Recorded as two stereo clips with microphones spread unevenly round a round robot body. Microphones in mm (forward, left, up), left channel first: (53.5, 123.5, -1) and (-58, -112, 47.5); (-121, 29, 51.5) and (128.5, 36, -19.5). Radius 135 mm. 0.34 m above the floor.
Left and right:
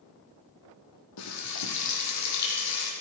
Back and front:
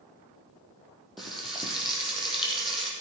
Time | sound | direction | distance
1.2 | frying | 90° left | 8 m